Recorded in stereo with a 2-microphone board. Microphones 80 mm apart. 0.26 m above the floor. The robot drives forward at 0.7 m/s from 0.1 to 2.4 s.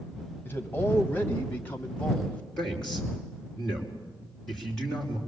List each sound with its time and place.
0.5 s a man speaking: 25° left (ahead or behind), 1.8 m; by 2.4 s 20° left (ahead or behind), 2.5 m
2.6 s a man speaking: 5° left (ahead or behind), 5 m